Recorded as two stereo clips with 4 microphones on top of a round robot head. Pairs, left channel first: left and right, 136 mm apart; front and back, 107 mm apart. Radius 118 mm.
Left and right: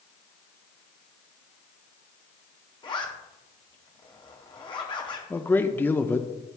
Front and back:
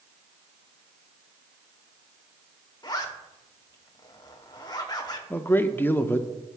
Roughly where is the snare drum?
No snare drum in this recording.